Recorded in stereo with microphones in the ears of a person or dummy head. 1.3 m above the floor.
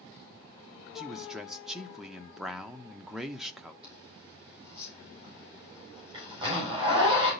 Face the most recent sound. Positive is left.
turn(degrees=-25)  # may be behind; listen again after turning